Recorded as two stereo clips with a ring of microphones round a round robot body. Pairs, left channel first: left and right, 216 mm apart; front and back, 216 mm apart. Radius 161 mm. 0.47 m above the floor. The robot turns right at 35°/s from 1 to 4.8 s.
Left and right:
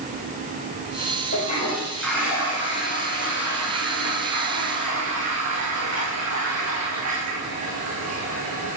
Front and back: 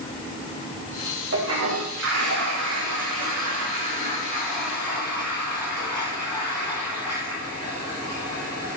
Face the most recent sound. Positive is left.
turn(degrees=-85)